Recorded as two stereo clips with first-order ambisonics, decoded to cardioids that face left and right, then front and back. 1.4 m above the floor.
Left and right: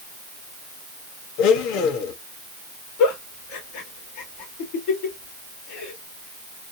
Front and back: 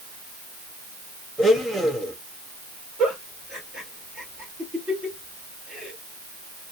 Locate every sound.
1.4 s a blender: 90° left, 1.0 m
3.0 s a giggle: 105° left, 2 m